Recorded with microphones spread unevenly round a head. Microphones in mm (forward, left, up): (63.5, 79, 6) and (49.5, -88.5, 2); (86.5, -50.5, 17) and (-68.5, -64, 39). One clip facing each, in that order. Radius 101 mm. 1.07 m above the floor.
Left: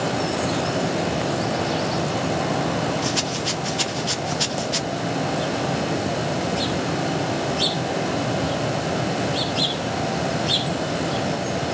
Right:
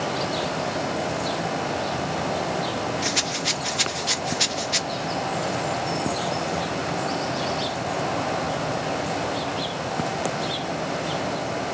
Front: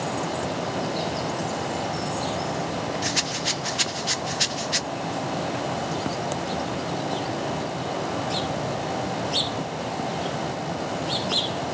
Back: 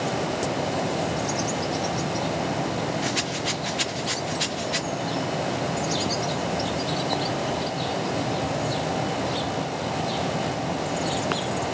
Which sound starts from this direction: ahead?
A rattle, at 3.0 s.